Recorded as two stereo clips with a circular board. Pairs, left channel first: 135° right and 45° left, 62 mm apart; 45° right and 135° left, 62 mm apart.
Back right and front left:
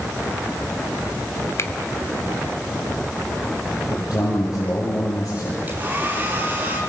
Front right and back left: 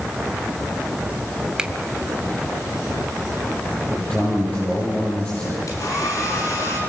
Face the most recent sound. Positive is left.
turn(degrees=-15)